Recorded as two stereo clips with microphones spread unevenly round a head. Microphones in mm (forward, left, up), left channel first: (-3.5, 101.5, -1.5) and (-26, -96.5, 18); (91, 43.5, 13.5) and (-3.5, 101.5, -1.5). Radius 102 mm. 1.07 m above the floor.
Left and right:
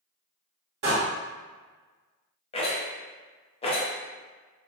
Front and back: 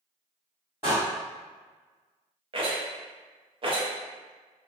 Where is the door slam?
135° right, 1.2 m.